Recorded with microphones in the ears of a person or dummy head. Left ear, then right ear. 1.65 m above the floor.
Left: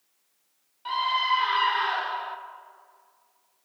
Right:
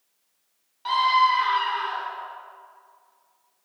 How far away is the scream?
About 1.1 m.